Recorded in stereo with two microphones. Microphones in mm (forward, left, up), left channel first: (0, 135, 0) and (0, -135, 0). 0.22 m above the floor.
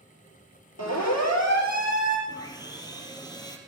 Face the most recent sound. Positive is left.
turn(degrees=15)  # may be behind; listen again after turning